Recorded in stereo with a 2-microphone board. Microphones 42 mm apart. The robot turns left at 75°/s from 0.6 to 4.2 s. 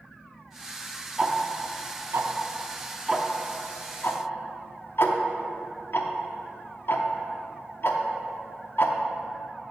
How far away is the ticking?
About 0.6 m.